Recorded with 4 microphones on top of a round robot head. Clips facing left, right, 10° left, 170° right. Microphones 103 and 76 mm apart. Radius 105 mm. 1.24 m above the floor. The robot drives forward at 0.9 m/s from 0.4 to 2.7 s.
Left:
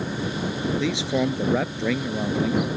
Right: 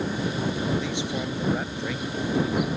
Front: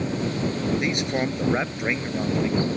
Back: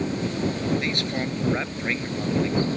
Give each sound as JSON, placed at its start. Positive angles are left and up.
{"t": 0.8, "sound": "a man speaking", "azimuth_deg": 80}